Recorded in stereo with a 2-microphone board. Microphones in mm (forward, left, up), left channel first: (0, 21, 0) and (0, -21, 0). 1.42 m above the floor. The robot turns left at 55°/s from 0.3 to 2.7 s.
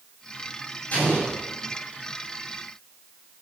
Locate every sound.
0.9 s an explosion: 35° left (ahead or behind), 6.5 m; by 1.4 s 10° left (ahead or behind), 6.5 m